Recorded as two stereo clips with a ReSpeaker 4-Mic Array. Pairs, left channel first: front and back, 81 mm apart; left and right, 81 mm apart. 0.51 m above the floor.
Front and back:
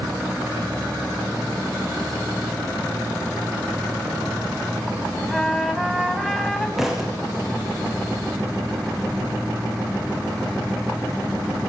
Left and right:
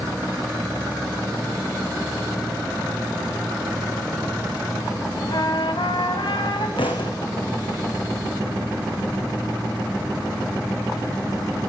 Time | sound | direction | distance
5.3 | a trumpet | 90° left | 4.5 m
6.8 | a thud | 95° left | 6.5 m